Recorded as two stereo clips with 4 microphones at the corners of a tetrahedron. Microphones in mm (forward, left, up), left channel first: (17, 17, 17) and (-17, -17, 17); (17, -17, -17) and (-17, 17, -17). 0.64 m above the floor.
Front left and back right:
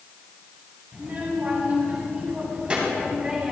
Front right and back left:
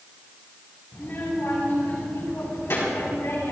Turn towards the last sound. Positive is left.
turn(degrees=-60)